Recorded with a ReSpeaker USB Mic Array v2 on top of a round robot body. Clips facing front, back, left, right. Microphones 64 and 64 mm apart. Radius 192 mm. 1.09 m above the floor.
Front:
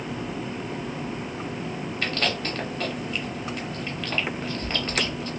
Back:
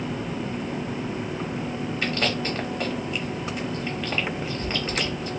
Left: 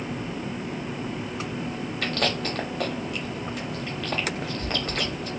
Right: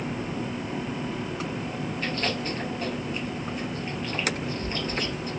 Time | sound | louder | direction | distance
2.0 | chewing | back 1 dB, left 3 dB | 100° left | 0.7 m